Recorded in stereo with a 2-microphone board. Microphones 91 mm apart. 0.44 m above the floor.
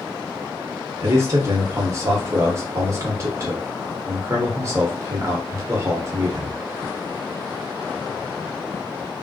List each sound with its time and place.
1.0 s a man speaking: 35° right (ahead or behind), 0.9 m